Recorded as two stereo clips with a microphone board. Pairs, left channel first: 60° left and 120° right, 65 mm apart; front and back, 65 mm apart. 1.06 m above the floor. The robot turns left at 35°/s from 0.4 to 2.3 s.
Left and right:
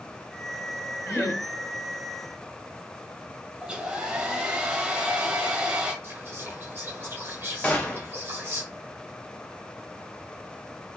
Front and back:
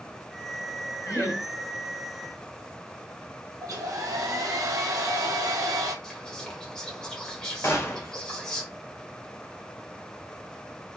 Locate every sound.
1.1 s laughter: 25° left, 1.1 m; by 1.4 s 10° left, 1.1 m
3.6 s a hair dryer: 165° left, 0.8 m
6.0 s whispering: 75° right, 1.0 m
7.6 s a gunshot: 5° left, 0.6 m